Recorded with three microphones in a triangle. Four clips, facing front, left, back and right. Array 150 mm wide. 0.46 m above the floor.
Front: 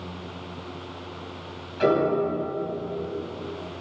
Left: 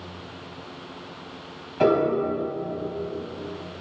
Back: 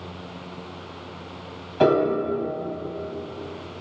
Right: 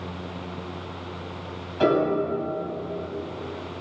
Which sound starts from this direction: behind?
A piano, at 1.8 s.